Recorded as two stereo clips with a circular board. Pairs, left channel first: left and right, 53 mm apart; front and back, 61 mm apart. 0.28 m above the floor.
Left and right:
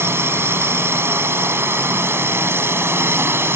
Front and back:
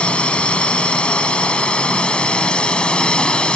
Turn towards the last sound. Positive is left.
turn(degrees=-70)